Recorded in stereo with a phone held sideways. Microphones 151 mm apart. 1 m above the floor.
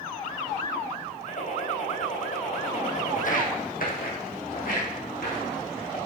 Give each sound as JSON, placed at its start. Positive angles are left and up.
{"t": 1.3, "sound": "a gunshot", "side_deg": 60, "distance_m": 4.0}
{"t": 3.1, "sound": "footsteps", "side_deg": 55, "distance_m": 1.7}